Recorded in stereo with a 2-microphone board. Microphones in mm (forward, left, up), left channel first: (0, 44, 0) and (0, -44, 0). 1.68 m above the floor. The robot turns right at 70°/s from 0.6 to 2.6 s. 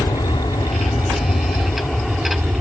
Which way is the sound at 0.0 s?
65° left.